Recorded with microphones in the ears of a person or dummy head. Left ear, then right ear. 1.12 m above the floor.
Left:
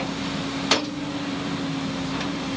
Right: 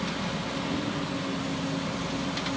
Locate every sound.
Only background noise.